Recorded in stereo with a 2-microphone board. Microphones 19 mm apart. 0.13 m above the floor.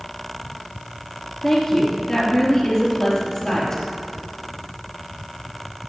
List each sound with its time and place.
1.4 s a woman speaking: 30° left (ahead or behind), 2.5 m